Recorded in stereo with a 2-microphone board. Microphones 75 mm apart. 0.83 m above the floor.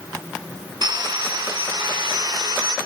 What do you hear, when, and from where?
0.8 s sawing: 70° right (ahead or behind), 1.6 m